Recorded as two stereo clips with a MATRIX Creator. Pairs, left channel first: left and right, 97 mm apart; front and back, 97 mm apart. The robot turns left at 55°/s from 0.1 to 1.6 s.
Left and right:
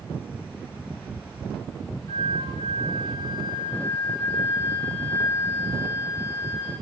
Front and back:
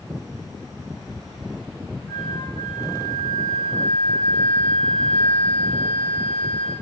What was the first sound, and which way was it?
A flute, 55° left.